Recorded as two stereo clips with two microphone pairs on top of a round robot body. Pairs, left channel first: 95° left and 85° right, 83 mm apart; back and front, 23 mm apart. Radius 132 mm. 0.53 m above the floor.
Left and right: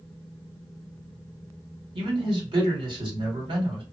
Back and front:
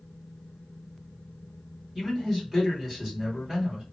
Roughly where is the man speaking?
Right.